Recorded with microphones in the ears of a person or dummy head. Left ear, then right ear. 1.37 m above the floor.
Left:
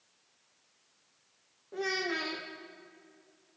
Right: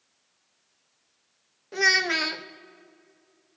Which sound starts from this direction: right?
A child speaking, at 1.7 s.